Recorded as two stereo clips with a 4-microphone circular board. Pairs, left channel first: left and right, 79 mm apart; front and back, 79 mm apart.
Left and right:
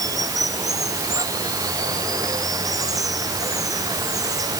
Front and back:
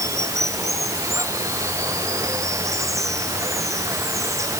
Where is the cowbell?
No cowbell in this recording.